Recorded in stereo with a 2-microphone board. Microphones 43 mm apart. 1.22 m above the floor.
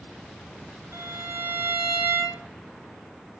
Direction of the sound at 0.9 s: 65° right (ahead or behind).